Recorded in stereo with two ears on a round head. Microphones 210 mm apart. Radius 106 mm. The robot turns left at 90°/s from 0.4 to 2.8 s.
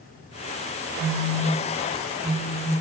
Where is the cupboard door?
No cupboard door in this recording.